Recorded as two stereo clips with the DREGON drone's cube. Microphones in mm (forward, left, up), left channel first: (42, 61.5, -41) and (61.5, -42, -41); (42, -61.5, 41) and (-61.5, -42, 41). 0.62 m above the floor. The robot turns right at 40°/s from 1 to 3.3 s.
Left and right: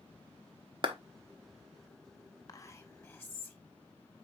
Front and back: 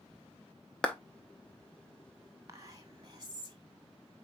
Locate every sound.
0.8 s a clap: 90° right, 0.8 m
2.5 s whispering: 125° left, 1.0 m; by 3.6 s 160° left, 1.0 m